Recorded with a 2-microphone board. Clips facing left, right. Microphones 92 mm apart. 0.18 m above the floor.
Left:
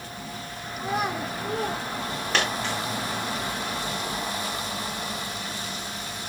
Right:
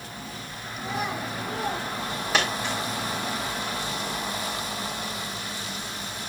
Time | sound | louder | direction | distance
0.8 | a child speaking | left 3 dB | 55° left (ahead or behind) | 2 m
2.3 | a dropped coin | right 1 dB | 5° right (ahead or behind) | 5 m